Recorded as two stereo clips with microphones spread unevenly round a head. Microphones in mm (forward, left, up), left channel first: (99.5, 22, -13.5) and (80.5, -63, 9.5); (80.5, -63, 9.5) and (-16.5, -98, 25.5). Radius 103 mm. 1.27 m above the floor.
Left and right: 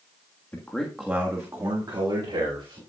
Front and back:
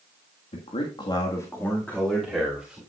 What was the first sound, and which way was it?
A man speaking, 5° left.